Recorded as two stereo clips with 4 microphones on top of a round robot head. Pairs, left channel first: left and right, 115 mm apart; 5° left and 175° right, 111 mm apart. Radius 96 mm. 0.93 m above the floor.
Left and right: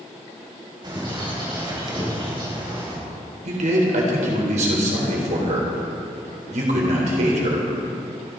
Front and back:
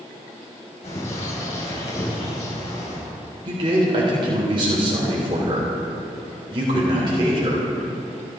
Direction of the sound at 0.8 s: 40° right.